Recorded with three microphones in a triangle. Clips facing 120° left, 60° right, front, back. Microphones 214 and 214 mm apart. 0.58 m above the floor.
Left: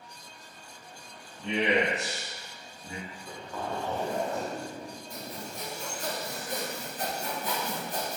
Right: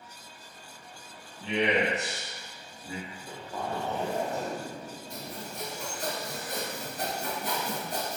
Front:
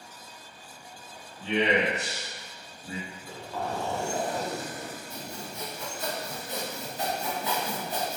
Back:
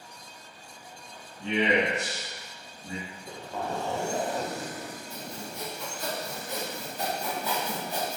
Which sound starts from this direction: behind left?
A man speaking, at 1.4 s.